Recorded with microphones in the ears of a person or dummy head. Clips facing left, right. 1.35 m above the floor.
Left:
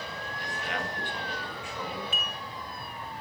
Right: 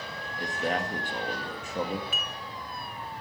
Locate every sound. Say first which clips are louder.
0.4 s a man speaking: right 7 dB; 35° right (ahead or behind), 1.7 m
2.1 s dishes clattering: left 1 dB; 25° left (ahead or behind), 0.5 m